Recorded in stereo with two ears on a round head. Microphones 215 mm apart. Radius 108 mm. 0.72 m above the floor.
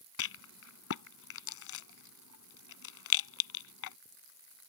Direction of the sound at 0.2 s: 65° left (ahead or behind).